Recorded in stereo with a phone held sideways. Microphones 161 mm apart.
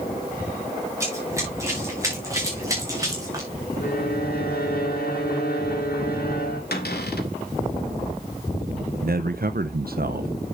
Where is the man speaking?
70° right (ahead or behind), 0.6 m.